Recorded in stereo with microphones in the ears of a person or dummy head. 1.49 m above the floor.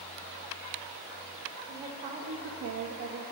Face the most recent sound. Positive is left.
turn(degrees=-50)  # may be behind; listen again after turning